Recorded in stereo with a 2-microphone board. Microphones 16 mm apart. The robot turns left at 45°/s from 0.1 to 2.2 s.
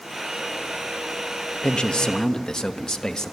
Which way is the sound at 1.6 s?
75° left (ahead or behind).